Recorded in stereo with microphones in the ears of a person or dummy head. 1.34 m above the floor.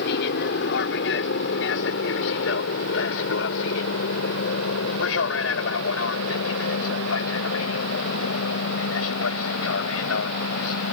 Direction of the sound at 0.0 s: 65° left (ahead or behind).